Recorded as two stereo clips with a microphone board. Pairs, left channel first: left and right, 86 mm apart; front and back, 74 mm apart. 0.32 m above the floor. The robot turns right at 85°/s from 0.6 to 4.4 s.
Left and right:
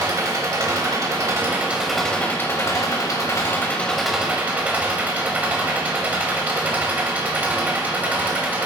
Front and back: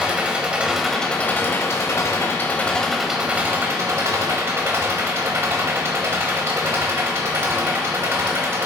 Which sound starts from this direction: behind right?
An engine running, at 0.0 s.